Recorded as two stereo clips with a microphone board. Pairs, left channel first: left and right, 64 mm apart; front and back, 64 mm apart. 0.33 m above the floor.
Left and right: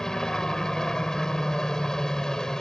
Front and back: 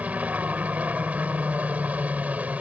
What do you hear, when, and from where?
0.0 s a helicopter: 160° left